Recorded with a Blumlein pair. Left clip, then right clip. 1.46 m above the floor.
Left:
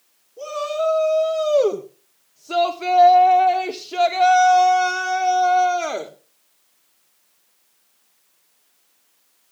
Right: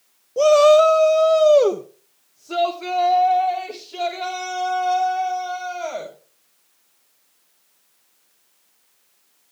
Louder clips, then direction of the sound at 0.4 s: Right 13 dB; 45° right.